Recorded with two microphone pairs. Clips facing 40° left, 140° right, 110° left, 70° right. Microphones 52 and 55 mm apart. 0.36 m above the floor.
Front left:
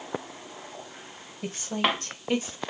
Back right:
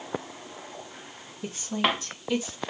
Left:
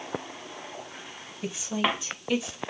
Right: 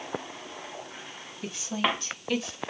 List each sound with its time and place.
1.4 s a woman speaking: 40° left, 2.5 m; by 2.6 s 30° left, 1.4 m